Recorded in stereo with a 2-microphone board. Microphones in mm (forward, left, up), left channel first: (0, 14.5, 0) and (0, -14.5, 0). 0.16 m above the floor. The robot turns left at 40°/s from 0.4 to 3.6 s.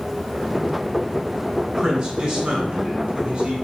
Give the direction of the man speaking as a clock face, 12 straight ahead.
1 o'clock.